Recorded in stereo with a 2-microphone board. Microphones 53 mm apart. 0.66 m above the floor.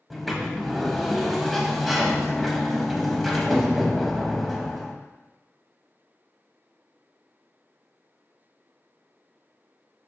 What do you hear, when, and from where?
0.1 s a sliding door: centre (ahead or behind), 0.5 m